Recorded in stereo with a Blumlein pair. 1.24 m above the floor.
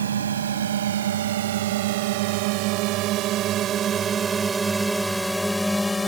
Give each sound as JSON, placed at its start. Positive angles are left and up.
{"t": 0.0, "sound": "a drone", "azimuth_deg": -65}